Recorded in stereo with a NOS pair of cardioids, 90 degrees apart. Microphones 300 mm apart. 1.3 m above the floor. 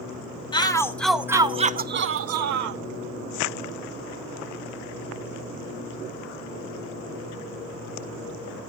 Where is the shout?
15° left, 1.3 m; by 2.8 s 75° right, 1.0 m.